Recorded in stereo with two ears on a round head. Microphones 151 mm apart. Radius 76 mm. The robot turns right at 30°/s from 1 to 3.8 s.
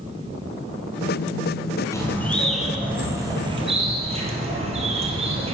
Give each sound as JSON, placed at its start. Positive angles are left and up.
{"t": 1.9, "sound": "a bird", "azimuth_deg": 160, "distance_m": 2.0}